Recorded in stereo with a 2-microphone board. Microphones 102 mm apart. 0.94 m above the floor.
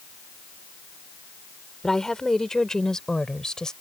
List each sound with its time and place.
1.8 s a woman speaking: 5° left (ahead or behind)